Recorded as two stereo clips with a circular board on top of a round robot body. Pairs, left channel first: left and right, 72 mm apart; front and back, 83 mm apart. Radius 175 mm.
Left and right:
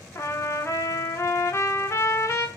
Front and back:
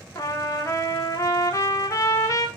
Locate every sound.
0.1 s a trumpet: 45° left, 1.0 m